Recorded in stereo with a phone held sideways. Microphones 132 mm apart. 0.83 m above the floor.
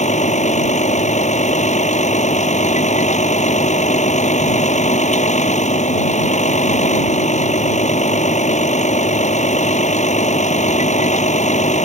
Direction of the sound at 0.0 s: 70° left (ahead or behind).